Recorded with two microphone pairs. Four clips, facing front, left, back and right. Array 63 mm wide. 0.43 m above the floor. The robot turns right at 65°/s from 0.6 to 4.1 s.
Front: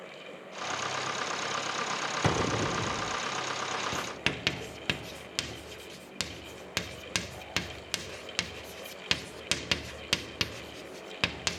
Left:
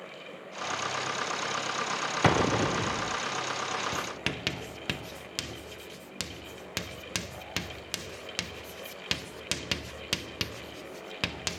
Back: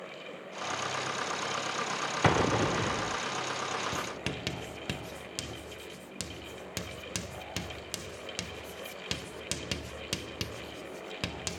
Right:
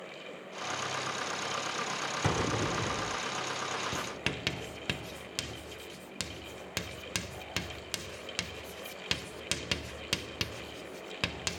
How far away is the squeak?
No squeak in this recording.